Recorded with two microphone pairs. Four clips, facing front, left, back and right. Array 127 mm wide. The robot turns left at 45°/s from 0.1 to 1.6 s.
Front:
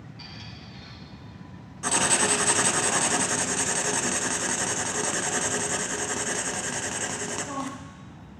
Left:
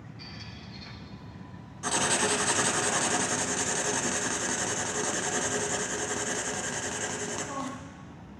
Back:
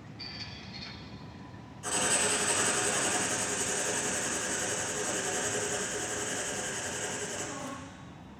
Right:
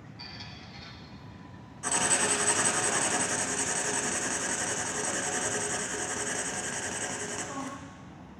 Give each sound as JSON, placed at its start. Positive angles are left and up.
{"t": 0.2, "sound": "a squeak", "azimuth_deg": -50, "distance_m": 0.9}
{"t": 1.8, "sound": "writing", "azimuth_deg": 20, "distance_m": 0.6}